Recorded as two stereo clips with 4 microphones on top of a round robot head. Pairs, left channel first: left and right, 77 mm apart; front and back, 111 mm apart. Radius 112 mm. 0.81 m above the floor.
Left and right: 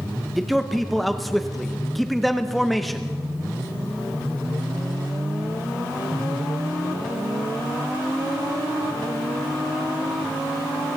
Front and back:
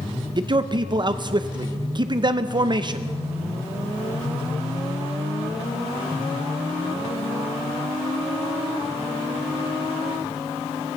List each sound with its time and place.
0.4 s a man speaking: straight behind, 0.7 m